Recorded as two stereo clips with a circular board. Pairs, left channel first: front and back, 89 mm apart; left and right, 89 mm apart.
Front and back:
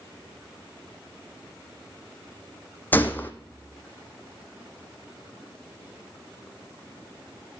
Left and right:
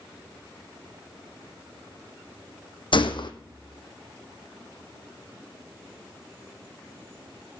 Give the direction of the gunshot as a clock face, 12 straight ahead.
10 o'clock.